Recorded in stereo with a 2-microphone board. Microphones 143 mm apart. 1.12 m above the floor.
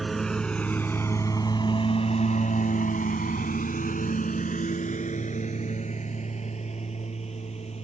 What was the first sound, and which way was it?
A lawn mower, centre (ahead or behind).